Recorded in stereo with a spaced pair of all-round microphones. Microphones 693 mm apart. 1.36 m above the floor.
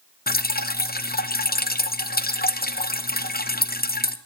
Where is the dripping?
15° left (ahead or behind), 0.6 m.